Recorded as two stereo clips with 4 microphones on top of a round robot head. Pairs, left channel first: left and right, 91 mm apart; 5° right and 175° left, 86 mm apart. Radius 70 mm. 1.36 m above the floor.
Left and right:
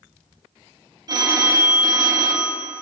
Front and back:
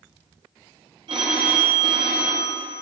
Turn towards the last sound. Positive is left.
turn(degrees=-135)